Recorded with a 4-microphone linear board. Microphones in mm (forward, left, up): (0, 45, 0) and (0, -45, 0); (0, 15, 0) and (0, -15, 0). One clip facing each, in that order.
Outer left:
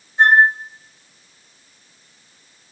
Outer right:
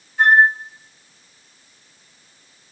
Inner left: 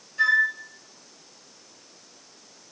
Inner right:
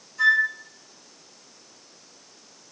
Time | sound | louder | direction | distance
0.2 | a flute | outer left 1 dB, inner right 1 dB | 30° left (ahead or behind) | 0.6 m